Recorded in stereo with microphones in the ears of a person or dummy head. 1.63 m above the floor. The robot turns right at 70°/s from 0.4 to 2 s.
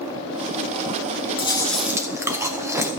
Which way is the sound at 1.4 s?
155° left.